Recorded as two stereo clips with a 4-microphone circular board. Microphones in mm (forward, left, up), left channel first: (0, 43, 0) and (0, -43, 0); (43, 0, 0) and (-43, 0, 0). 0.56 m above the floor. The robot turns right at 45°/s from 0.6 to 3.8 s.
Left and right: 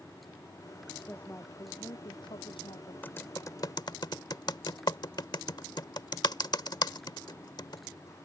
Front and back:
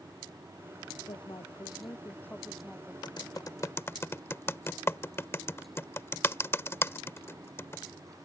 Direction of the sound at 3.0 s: 25° left.